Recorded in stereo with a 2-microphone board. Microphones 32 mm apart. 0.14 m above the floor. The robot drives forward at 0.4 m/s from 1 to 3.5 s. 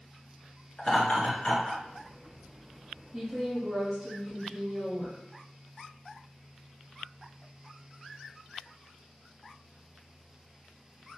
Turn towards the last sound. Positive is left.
turn(degrees=-5)  # may be behind; listen again after turning